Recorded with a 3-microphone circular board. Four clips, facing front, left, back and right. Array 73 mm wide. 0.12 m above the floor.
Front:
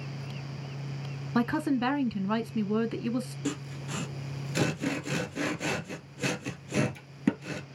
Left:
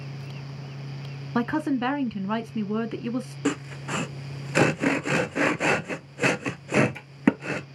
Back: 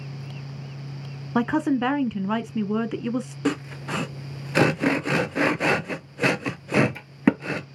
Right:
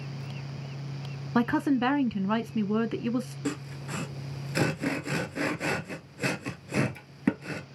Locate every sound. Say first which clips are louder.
1.4 s a woman speaking: even, back 5 dB; 175° right, 1.1 m
3.5 s sawing: left 6 dB, back 8 dB; 140° left, 0.7 m